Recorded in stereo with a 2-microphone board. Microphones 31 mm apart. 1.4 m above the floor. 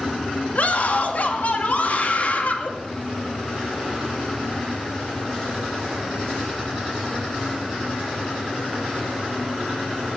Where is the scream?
50° left (ahead or behind), 2.5 m.